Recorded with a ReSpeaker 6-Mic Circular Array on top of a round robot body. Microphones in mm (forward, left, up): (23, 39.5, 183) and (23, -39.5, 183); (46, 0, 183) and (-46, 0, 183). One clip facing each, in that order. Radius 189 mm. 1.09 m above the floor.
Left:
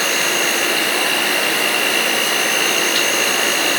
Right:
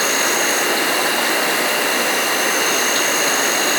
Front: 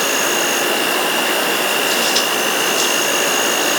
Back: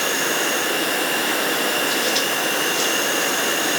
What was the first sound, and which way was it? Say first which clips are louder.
An insect: right 1 dB, front 4 dB; 25° right.